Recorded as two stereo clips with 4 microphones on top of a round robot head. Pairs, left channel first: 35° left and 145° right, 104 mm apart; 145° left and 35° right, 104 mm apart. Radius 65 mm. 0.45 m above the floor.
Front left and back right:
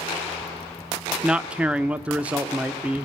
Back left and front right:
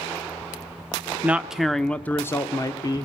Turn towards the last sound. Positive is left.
turn(degrees=140)